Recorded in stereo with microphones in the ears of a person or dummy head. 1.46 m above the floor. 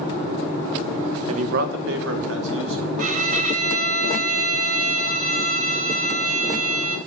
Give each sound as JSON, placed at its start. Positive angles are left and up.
{"t": 1.3, "sound": "a man speaking", "side_deg": -40, "distance_m": 1.0}
{"t": 3.0, "sound": "a violin", "side_deg": -45, "distance_m": 0.8}